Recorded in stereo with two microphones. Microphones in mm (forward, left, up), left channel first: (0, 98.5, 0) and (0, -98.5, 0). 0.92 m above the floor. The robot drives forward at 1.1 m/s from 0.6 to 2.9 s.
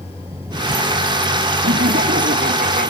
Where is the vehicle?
15° right (ahead or behind); by 2.9 s 10° right (ahead or behind).